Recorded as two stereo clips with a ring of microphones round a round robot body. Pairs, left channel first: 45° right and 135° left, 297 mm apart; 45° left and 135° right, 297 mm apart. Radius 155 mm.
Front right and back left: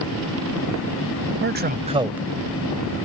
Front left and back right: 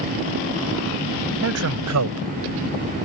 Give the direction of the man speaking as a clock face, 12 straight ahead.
6 o'clock.